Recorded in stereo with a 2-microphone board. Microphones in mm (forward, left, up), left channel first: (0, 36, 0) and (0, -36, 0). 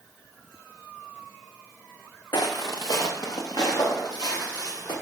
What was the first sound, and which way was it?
Footsteps, 85° left.